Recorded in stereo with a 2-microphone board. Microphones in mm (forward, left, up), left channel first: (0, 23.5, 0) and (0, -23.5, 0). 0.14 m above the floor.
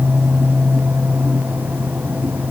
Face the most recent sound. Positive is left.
No sound to turn to.